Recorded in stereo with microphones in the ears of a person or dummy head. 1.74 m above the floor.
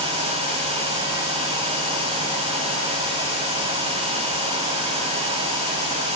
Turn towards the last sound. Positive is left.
No sound to turn to.